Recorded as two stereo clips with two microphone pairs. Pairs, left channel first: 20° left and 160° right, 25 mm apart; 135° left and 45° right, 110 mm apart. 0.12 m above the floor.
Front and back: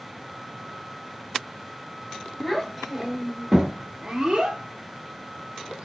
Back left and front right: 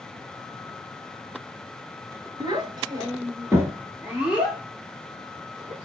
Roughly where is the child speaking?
Ahead right.